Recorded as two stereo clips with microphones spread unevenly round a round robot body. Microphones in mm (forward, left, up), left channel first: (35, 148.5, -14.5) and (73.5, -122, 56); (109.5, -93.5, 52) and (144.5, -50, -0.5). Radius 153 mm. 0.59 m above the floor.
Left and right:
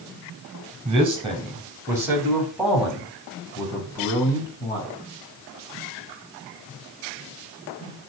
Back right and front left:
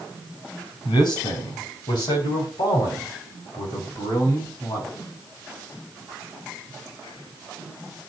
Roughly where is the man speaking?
Behind right.